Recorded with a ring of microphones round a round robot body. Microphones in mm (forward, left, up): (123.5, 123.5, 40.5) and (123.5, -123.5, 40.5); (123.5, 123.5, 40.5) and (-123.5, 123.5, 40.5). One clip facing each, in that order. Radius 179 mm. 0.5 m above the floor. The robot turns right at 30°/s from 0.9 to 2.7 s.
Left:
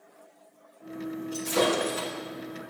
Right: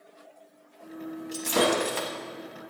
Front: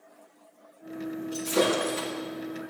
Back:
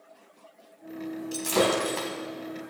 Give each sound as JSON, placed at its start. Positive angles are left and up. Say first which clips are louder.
{"t": 1.3, "sound": "breaking glass", "louder": "right 1 dB, even", "azimuth_deg": -150, "distance_m": 1.4}